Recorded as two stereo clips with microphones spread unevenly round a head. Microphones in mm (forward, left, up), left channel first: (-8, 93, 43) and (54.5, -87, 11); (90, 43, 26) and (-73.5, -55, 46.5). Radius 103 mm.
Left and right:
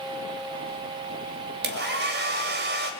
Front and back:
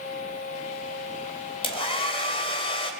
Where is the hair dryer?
35° right, 2.5 m.